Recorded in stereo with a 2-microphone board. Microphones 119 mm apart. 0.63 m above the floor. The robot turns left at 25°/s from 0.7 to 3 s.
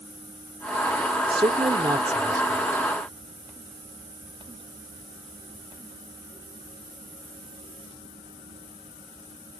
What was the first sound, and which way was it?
A man speaking, 115° right.